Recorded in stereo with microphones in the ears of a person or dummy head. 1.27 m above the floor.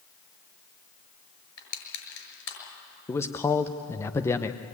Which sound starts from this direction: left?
Crushing, at 1.6 s.